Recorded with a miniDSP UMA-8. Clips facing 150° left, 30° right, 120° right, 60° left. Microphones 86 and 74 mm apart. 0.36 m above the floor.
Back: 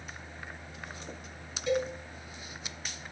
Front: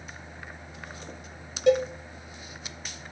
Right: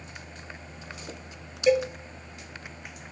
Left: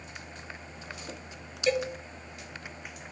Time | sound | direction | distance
1.7 | a cowbell | 40° right | 0.7 m